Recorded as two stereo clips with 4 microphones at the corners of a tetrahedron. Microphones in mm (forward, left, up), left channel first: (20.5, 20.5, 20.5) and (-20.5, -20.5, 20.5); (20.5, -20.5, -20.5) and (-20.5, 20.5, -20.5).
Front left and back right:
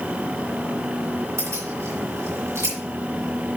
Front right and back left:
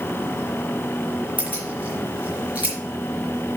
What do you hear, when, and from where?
1.4 s keys jangling: 160° right, 4 m